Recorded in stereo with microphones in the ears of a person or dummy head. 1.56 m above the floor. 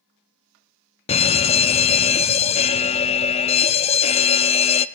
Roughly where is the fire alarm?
Left.